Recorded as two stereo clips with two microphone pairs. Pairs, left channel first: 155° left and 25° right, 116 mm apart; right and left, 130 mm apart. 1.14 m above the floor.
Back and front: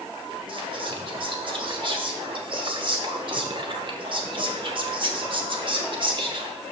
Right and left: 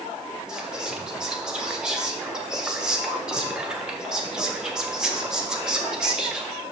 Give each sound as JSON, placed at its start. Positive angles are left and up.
{"t": 0.5, "sound": "whispering", "azimuth_deg": 5, "distance_m": 1.1}